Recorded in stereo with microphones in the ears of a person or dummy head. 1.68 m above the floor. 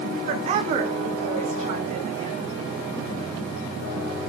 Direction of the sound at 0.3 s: 35° right (ahead or behind).